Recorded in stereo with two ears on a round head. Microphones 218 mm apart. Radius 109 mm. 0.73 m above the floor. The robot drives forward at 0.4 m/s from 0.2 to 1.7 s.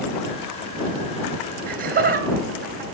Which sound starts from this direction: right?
Laughter, at 1.7 s.